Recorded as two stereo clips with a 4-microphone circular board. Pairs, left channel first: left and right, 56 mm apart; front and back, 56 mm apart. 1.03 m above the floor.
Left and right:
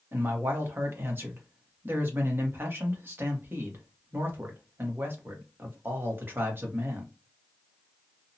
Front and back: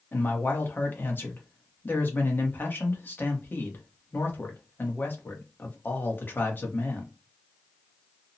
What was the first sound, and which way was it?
A man speaking, 45° right.